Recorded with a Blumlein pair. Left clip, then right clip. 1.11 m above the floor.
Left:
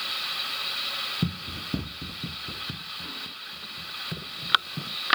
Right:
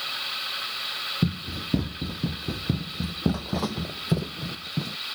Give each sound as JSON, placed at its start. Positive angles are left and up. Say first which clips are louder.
{"t": 1.2, "sound": "running footsteps", "louder": "right 2 dB", "azimuth_deg": -10}